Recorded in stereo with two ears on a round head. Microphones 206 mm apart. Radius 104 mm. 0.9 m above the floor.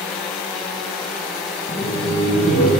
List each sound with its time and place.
1.7 s laughter: 40° left (ahead or behind), 0.7 m; by 2.7 s 45° left (ahead or behind), 1.4 m